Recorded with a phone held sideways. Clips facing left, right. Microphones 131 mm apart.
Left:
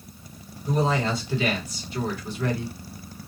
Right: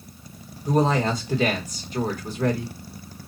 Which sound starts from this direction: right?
A woman speaking, at 0.7 s.